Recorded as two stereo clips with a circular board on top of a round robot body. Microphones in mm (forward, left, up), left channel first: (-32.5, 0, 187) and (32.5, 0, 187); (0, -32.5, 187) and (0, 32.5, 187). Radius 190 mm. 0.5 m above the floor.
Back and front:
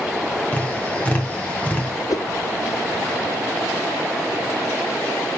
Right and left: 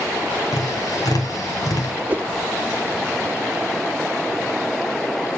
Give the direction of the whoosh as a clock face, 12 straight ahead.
7 o'clock.